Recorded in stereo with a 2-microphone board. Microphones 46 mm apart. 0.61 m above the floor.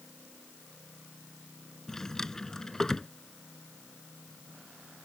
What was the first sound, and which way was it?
A drawer, 10° left (ahead or behind).